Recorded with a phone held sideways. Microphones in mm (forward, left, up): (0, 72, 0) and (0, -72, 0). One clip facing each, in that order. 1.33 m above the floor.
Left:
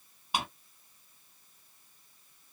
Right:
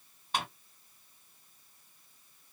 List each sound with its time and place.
0.3 s a drawer: 10° left (ahead or behind), 1.8 m